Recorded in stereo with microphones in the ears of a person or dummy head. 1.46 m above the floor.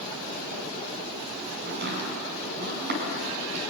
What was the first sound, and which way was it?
Chopping, 55° right (ahead or behind).